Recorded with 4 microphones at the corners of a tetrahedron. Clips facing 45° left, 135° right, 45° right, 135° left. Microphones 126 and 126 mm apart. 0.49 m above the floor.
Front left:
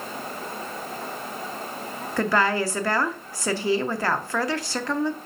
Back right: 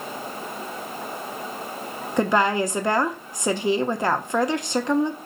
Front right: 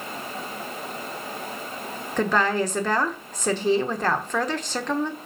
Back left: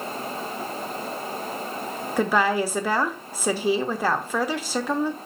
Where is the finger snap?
I don't hear a finger snap.